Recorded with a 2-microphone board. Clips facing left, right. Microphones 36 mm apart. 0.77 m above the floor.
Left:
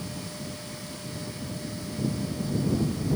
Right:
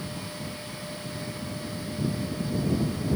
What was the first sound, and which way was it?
Only background noise.